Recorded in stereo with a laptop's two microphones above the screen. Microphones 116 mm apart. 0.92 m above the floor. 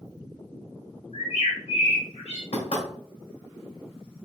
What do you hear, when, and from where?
1.1 s a bird: 85° left, 2 m
2.5 s knocking: 80° left, 2 m